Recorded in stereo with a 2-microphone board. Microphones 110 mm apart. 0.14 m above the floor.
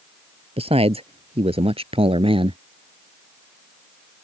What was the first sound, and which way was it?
A man speaking, 60° right (ahead or behind).